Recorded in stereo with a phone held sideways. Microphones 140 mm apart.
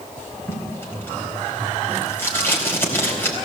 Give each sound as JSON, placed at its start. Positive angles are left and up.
{"t": 0.5, "sound": "tape being pulled", "side_deg": 15, "distance_m": 4.0}